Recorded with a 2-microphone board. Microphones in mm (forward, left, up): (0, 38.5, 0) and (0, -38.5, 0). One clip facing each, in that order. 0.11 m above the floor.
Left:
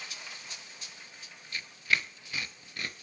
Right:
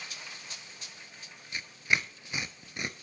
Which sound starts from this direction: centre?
Tearing paper, at 1.5 s.